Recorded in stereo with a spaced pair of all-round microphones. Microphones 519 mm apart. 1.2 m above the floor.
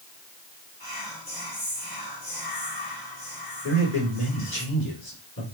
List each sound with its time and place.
0.8 s whispering: 40° left (ahead or behind), 2.0 m
3.6 s a man speaking: 25° left (ahead or behind), 3 m